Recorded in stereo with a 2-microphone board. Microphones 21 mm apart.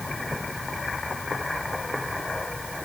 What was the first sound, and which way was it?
Only background noise.